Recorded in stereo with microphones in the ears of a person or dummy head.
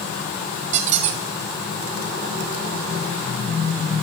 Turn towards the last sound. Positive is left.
turn(degrees=-40)  # may be behind; listen again after turning